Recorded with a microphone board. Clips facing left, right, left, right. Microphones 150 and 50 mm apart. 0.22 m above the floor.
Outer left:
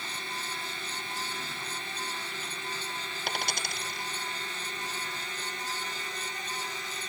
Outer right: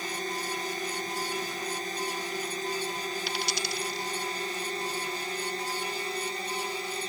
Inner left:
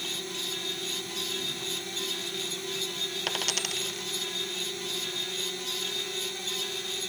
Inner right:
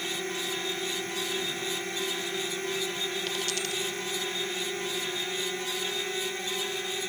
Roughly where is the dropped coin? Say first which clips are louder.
Outer right 2 dB, even; left.